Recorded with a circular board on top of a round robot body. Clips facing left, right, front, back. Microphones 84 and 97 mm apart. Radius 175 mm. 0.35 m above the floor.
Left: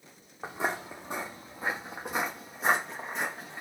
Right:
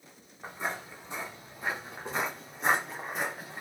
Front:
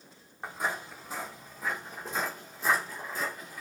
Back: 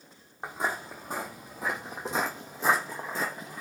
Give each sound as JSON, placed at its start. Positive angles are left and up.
{"t": 0.4, "sound": "footsteps", "azimuth_deg": 110, "distance_m": 1.0}